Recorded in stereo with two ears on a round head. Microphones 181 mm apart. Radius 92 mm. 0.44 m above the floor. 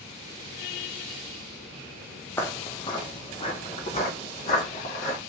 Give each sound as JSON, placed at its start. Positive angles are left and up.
{"t": 2.4, "sound": "footsteps", "side_deg": 10, "distance_m": 0.6}